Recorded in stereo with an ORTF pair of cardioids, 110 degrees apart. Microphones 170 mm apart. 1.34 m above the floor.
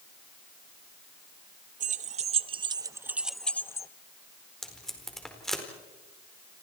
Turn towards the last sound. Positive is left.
turn(degrees=0)